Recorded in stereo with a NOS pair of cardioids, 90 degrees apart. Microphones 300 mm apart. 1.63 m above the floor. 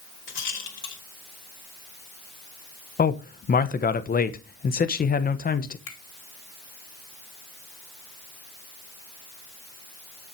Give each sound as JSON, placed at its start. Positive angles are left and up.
{"t": 0.3, "sound": "a rattle", "azimuth_deg": 40, "distance_m": 3.5}
{"t": 3.0, "sound": "a man speaking", "azimuth_deg": 30, "distance_m": 1.2}
{"t": 5.9, "sound": "a finger snap", "azimuth_deg": 50, "distance_m": 4.0}